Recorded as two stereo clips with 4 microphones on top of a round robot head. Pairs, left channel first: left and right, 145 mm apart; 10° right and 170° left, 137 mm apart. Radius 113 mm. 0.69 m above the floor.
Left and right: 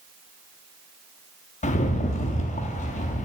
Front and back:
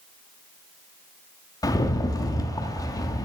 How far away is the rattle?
About 1.1 m.